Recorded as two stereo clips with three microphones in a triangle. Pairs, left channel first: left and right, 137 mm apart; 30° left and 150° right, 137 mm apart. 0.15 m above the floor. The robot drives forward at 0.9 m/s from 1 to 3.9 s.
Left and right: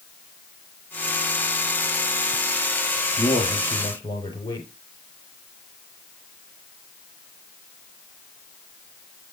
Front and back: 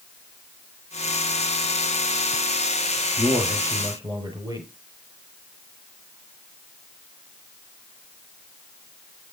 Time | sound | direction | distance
3.2 | a man speaking | 145° left | 3.5 m